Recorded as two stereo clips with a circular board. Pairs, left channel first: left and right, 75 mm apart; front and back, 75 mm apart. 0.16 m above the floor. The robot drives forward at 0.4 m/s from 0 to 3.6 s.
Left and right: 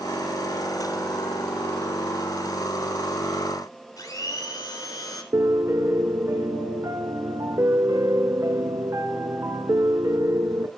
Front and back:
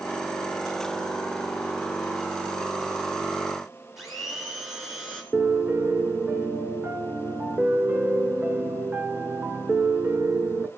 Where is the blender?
95° left, 2.5 m.